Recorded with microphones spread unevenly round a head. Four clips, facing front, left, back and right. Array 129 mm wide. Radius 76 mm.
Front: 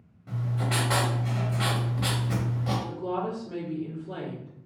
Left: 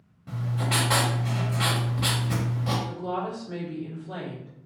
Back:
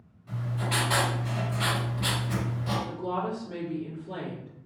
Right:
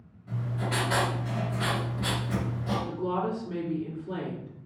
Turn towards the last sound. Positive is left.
turn(degrees=-55)